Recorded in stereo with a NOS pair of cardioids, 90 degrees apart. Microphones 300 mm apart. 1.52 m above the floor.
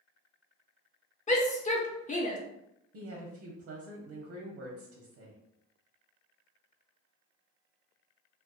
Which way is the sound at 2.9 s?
60° right.